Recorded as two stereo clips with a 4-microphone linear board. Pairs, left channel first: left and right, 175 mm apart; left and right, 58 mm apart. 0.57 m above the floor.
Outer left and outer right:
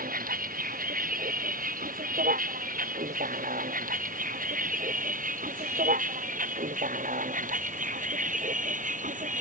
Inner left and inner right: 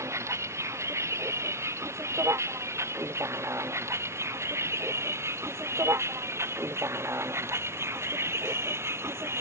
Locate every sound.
0.0 s a vehicle: 55° right (ahead or behind); by 9.4 s 50° right (ahead or behind)